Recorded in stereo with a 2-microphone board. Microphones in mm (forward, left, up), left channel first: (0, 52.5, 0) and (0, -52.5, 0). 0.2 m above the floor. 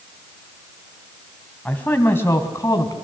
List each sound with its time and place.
1.6 s a man speaking: 15° left (ahead or behind), 1.6 m; by 3.0 s 35° left (ahead or behind), 1.9 m